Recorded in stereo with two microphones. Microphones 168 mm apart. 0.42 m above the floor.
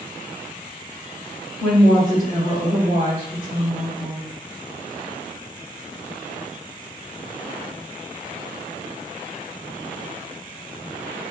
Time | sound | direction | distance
1.6 | a woman speaking | 20° left (ahead or behind) | 1.5 m